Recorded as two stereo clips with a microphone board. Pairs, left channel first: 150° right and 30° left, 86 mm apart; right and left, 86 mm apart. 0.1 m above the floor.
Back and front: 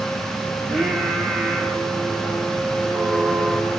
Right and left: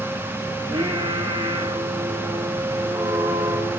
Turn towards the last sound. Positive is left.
turn(degrees=120)